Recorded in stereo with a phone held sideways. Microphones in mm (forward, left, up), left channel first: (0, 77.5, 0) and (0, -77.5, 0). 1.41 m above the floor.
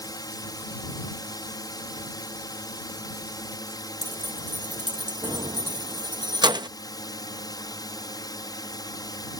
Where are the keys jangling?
25° right (ahead or behind).